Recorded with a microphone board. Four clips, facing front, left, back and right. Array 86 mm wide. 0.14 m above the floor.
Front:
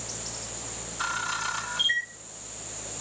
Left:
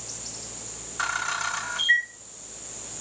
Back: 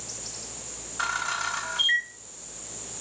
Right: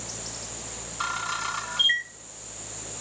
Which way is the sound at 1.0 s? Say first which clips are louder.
Left 2 dB, back 2 dB; 130° left.